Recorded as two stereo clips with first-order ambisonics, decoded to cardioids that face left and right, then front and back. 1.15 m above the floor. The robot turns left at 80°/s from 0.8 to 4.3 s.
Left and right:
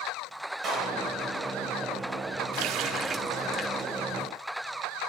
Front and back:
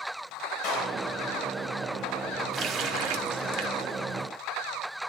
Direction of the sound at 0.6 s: 35° right.